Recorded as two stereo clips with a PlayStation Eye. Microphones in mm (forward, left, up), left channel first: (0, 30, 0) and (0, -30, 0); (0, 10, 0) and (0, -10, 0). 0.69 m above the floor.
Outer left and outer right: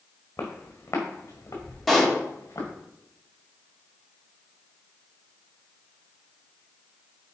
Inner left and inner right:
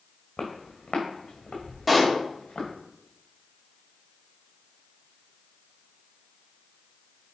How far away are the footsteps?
About 2.0 m.